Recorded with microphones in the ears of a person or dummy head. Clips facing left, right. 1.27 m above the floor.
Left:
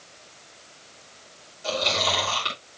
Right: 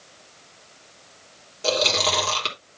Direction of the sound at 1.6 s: 75° right (ahead or behind).